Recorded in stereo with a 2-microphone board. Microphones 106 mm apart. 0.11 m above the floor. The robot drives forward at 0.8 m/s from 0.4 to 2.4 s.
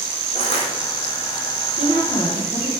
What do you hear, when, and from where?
0.3 s crushing: 75° left (ahead or behind), 1.3 m; by 0.7 s 65° left (ahead or behind), 1.3 m
1.8 s a woman speaking: 45° left (ahead or behind), 3 m; by 2.7 s 50° left (ahead or behind), 2.5 m